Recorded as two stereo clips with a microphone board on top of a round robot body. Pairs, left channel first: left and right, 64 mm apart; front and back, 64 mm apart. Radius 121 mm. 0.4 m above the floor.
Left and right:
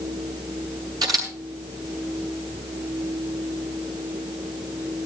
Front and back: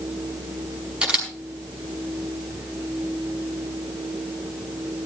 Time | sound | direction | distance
1.0 | a camera shutter | 110° right | 4.5 m